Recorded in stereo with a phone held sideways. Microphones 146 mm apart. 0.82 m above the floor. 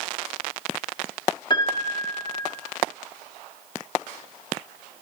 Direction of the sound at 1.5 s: 30° left (ahead or behind).